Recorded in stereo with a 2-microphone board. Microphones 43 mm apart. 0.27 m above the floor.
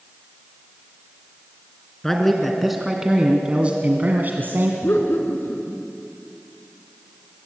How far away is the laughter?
About 3.5 m.